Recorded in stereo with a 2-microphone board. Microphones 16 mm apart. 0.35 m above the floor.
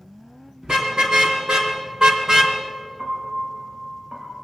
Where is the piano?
80° right, 4 m.